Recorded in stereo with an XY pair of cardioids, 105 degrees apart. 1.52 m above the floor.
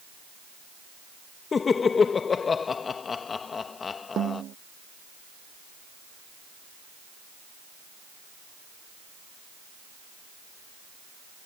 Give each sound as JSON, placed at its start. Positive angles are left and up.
{"t": 1.5, "sound": "laughter", "azimuth_deg": 40}
{"t": 4.2, "sound": "a snare drum", "azimuth_deg": -60}